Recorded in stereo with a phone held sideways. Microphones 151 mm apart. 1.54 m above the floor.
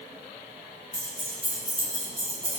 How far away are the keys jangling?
About 1.0 m.